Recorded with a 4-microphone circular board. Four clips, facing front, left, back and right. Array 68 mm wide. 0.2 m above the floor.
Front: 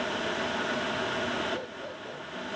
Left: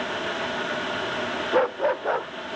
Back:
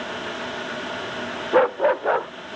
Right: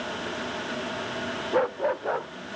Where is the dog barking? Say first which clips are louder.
Left 3 dB, back 19 dB; 170° left.